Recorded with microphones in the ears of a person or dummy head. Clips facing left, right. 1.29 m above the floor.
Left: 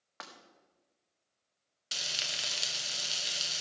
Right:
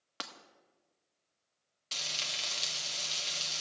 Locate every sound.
0.2 s breaking glass: 45° right (ahead or behind), 1.2 m
1.9 s frying: 10° left (ahead or behind), 1.2 m